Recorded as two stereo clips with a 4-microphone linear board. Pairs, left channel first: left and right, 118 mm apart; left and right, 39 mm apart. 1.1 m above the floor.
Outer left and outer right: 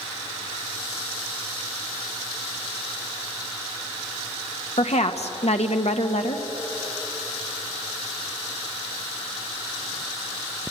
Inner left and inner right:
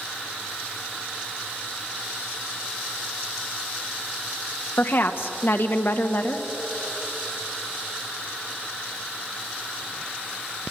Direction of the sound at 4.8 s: 65° left (ahead or behind).